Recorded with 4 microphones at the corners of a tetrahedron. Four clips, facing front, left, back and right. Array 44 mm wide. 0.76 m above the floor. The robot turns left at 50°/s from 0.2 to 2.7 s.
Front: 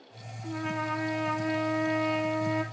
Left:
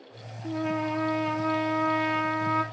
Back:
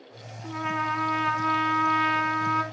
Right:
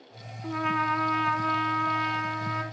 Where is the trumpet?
105° right, 1.3 m; by 2.6 s 145° left, 1.3 m.